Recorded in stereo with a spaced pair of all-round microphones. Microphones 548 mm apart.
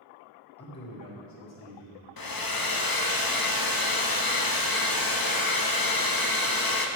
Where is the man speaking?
25° left (ahead or behind), 1.2 m; by 2.0 s 50° left (ahead or behind), 1.9 m.